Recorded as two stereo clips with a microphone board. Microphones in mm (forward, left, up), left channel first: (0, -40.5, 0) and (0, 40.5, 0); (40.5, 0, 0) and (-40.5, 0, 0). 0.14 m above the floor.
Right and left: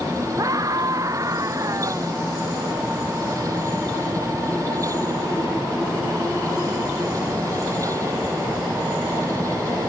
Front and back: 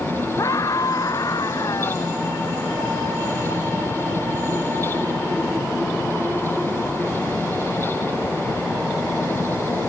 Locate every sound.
0.4 s a scream: 45° left; by 2.1 s 40° left